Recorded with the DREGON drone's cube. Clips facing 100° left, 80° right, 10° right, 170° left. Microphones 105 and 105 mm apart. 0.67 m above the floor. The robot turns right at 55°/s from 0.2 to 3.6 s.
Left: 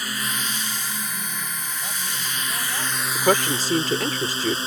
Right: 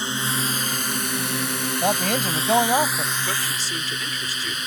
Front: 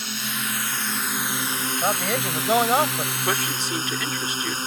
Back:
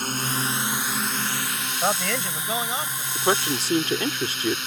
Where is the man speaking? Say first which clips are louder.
Right 14 dB, even; 105° right; by 3.0 s 35° right.